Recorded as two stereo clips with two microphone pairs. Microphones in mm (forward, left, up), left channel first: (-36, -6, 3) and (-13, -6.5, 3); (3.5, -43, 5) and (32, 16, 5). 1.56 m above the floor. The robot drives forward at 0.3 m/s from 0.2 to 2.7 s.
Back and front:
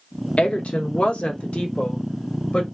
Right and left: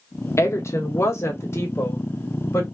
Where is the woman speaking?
160° right, 0.9 m; by 2.6 s 170° right, 1.5 m.